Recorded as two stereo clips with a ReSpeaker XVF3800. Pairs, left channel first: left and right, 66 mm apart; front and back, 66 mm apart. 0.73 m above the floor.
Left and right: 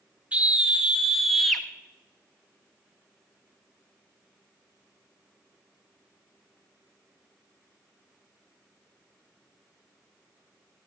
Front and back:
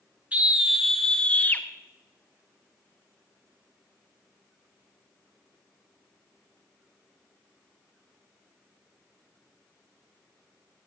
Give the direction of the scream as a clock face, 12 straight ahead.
5 o'clock.